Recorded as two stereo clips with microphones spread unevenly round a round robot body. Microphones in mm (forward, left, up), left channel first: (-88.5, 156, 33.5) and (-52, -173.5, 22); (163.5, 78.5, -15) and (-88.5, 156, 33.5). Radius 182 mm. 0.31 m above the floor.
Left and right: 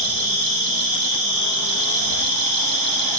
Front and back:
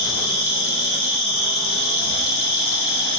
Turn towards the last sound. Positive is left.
turn(degrees=-45)